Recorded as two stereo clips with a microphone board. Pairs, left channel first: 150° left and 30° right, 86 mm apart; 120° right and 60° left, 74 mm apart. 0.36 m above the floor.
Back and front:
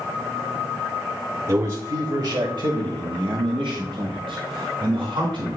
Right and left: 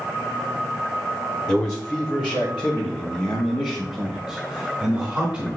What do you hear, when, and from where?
1.5 s a man speaking: 45° right, 1.2 m; by 5.6 s 5° right, 3 m